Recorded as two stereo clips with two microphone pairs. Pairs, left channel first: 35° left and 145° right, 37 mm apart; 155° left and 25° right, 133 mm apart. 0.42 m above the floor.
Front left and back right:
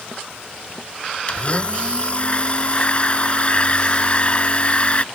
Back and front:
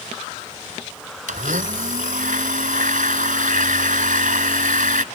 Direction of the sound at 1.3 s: 20° right.